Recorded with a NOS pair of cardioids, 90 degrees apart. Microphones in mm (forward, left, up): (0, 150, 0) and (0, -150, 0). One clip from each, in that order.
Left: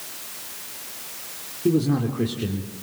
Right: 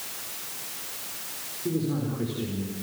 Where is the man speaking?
60° left, 3.5 m.